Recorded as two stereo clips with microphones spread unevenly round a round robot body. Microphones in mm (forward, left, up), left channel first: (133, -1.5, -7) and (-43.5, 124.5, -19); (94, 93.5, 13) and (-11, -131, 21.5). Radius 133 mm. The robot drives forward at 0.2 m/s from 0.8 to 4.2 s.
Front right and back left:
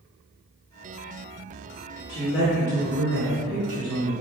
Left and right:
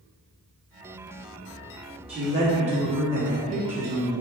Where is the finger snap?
I don't hear a finger snap.